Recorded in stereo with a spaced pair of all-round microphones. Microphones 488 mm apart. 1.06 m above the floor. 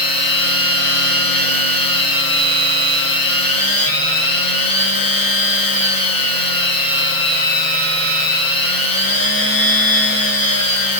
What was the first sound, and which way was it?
A machine running, 45° left (ahead or behind).